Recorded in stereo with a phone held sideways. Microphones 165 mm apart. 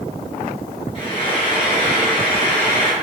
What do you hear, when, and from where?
0.9 s frying: 35° left (ahead or behind), 0.9 m